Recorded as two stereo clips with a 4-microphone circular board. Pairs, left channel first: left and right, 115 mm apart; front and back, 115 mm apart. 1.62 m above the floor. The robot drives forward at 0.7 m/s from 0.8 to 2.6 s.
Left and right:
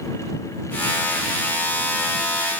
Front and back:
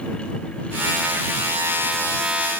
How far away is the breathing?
I don't hear breathing.